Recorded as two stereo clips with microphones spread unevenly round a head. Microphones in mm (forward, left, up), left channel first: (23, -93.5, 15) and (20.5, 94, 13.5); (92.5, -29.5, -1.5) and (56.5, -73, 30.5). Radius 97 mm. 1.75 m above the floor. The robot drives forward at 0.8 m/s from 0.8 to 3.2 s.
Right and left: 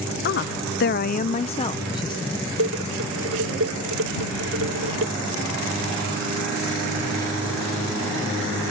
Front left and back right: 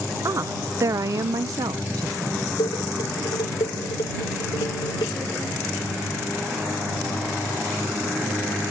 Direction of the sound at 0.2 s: 130° right.